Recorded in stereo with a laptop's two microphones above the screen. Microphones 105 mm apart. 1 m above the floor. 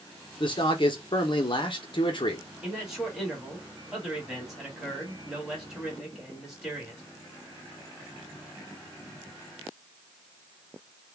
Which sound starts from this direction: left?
A man speaking, at 0.4 s.